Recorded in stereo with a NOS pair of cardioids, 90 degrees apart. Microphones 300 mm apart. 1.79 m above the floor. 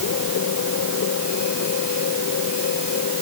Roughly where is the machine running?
Ahead left.